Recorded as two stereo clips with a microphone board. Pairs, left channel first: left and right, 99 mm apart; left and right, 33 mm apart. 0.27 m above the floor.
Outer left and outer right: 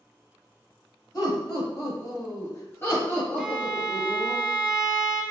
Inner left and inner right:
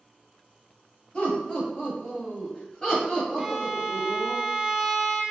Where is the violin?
5° right (ahead or behind), 0.6 m.